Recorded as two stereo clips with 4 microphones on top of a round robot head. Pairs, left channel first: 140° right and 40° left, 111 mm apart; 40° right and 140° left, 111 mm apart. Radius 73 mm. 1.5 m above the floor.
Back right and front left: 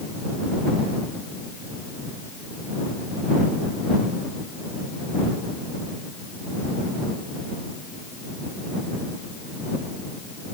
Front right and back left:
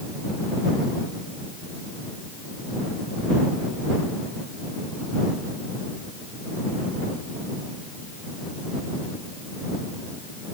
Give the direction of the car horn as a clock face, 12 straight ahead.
No car horn in this recording.